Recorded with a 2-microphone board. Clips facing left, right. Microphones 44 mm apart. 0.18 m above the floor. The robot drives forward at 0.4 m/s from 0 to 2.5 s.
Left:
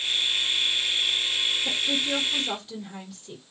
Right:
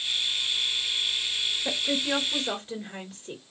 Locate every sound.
1.6 s a woman speaking: 30° right (ahead or behind), 2 m; by 3.4 s 25° right (ahead or behind), 2.5 m